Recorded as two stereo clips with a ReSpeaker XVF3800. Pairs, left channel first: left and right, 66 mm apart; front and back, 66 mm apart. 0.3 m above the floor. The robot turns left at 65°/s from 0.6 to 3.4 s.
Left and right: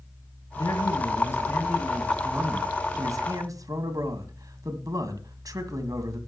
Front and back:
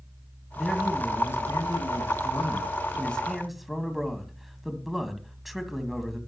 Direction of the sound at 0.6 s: 90° left.